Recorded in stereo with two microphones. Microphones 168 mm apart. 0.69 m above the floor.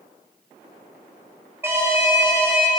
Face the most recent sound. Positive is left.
turn(degrees=-15)  # may be behind; listen again after turning